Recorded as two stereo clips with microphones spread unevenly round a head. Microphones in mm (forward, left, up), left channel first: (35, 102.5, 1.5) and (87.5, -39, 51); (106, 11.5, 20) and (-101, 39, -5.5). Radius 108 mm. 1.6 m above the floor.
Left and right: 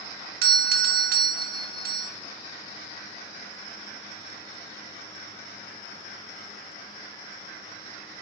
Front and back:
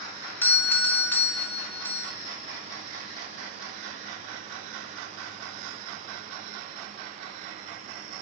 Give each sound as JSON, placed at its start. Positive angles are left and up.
{"t": 0.4, "sound": "a doorbell", "azimuth_deg": -90, "distance_m": 0.8}